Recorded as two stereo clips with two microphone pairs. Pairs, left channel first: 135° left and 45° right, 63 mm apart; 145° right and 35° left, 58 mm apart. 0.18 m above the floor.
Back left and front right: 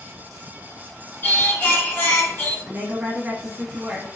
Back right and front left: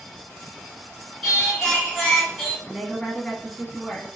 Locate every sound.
1.2 s singing: 140° left, 1.6 m
2.6 s a woman speaking: 50° right, 1.2 m